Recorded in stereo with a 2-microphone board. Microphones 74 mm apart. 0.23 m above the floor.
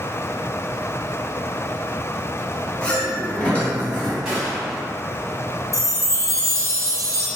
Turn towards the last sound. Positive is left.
turn(degrees=-50)  # may be behind; listen again after turning